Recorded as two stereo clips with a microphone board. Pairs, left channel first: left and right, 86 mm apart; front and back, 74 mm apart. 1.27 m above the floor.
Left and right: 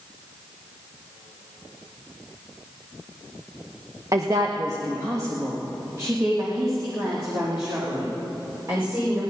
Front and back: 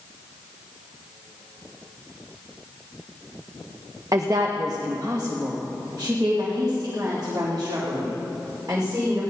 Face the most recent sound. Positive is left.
turn(degrees=-140)